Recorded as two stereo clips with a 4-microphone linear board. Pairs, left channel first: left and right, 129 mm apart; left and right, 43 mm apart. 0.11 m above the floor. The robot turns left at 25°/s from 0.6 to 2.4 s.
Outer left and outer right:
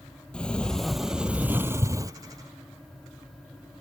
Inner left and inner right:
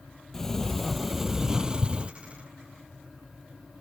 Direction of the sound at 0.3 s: 10° left.